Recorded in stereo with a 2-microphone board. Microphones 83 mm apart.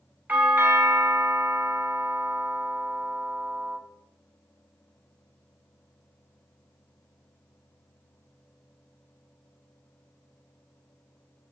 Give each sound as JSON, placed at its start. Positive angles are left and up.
{"t": 0.3, "sound": "a doorbell", "side_deg": -20, "distance_m": 1.6}